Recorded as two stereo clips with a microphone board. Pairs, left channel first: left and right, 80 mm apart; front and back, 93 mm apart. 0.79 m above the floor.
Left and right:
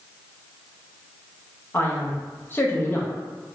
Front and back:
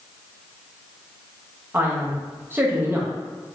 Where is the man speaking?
130° left, 0.7 m.